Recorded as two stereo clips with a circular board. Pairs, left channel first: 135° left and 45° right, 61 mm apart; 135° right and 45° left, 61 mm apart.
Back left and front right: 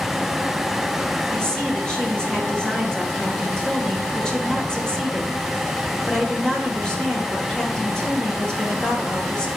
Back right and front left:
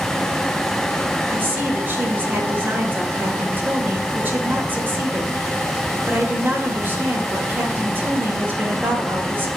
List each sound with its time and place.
1.3 s a woman speaking: 70° left, 1.6 m